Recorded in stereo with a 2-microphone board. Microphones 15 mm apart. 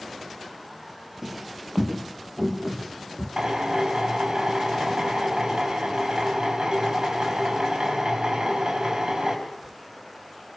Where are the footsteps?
5° right (ahead or behind), 2 m; by 3.3 s 10° right (ahead or behind), 4 m.